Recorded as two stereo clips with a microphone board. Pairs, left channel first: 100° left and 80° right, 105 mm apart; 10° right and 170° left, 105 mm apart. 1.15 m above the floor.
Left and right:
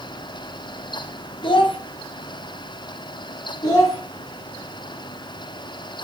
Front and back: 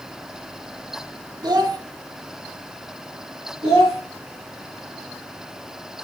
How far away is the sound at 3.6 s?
About 1.6 m.